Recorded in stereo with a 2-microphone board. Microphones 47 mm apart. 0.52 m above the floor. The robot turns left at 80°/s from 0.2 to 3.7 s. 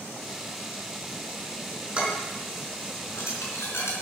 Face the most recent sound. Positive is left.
turn(degrees=65)  # may be behind; listen again after turning